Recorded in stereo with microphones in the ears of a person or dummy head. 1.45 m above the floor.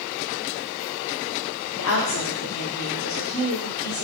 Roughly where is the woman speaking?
Left.